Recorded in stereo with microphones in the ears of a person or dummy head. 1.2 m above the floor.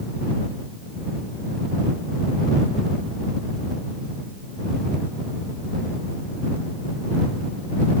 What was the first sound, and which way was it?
Only background noise.